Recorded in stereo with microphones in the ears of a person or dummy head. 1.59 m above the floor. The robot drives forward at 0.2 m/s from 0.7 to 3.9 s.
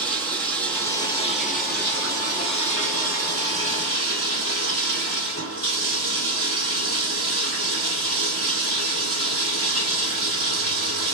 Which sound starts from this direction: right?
Running water, at 0.0 s.